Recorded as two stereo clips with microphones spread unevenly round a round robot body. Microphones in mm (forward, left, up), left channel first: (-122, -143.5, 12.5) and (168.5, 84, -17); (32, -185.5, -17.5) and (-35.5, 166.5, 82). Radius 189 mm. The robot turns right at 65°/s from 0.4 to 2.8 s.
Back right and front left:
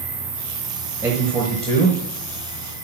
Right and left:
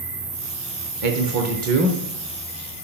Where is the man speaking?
110° left, 0.9 m; by 2.0 s 170° left, 0.9 m.